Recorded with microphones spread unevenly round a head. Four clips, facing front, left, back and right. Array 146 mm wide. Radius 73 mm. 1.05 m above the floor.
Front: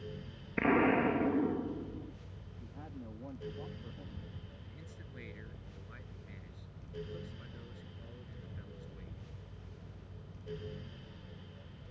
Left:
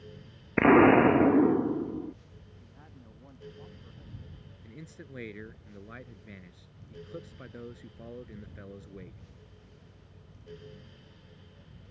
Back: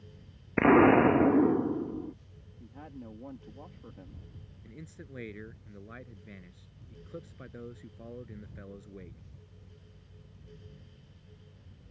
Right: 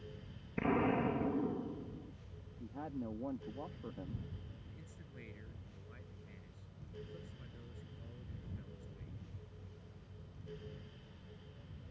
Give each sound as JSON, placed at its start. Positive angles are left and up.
{"t": 0.6, "sound": "an explosion", "azimuth_deg": 125}
{"t": 2.6, "sound": "a woman speaking", "azimuth_deg": -105}
{"t": 4.6, "sound": "a man speaking", "azimuth_deg": 125}